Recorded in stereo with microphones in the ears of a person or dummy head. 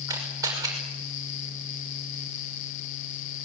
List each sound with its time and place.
0.1 s a camera shutter: 15° right (ahead or behind), 6 m